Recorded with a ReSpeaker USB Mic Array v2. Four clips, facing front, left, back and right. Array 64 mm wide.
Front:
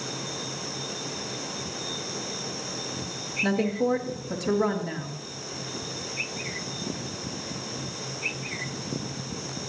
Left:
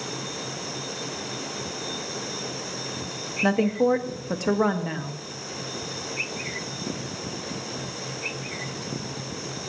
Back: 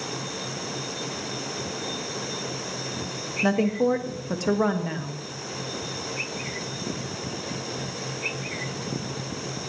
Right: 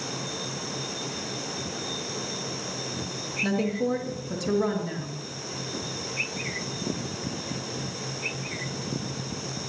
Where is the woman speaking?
125° left, 1.6 m.